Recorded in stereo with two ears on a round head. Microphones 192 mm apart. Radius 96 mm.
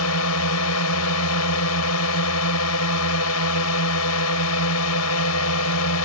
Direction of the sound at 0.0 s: 80° left.